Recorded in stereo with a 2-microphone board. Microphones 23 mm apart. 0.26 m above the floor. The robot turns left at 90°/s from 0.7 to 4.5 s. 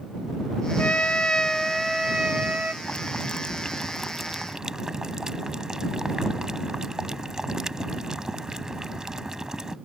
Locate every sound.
0.8 s a trumpet: 90° left; by 2.7 s 85° right
2.8 s boiling: 115° left; by 9.8 s 35° right